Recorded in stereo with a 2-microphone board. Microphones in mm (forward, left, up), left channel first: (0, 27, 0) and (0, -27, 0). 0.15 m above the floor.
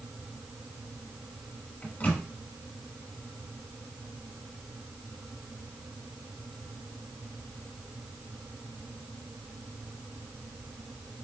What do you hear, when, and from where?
1.8 s a microwave: 30° left (ahead or behind), 0.9 m